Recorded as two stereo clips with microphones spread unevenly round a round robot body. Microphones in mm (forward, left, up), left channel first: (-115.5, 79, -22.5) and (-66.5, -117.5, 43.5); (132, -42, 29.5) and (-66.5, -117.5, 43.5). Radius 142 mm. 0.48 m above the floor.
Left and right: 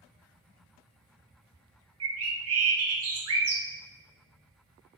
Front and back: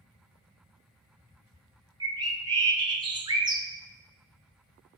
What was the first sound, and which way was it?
A bird, 85° right.